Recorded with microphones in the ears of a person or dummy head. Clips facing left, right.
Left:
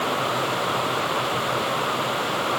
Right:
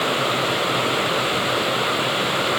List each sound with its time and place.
Only background noise.